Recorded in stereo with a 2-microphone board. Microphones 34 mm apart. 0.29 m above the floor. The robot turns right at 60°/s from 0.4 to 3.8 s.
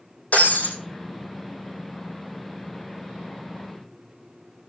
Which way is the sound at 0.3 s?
50° left (ahead or behind).